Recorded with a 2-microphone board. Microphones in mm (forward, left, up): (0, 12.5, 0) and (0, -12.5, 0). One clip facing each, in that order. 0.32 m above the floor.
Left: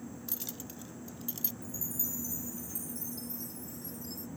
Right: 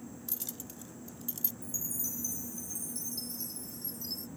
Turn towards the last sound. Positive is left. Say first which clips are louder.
# right 3 dB
turn(degrees=-65)  # may be behind; listen again after turning